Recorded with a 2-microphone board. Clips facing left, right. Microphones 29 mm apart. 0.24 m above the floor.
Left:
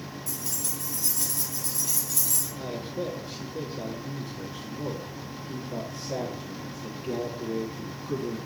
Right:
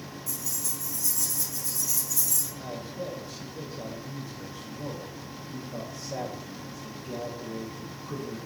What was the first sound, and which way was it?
Keys jangling, 70° left (ahead or behind).